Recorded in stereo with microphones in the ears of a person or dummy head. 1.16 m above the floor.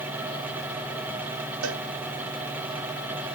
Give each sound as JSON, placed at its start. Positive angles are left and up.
{"t": 1.6, "sound": "a cowbell", "side_deg": -70}